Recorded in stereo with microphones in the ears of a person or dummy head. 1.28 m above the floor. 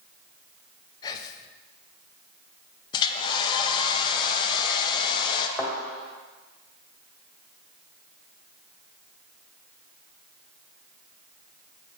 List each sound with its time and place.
1.0 s whispering: 30° left (ahead or behind), 0.5 m
2.9 s a hair dryer: 30° left (ahead or behind), 0.5 m
5.6 s a thud: 5° left (ahead or behind), 1.7 m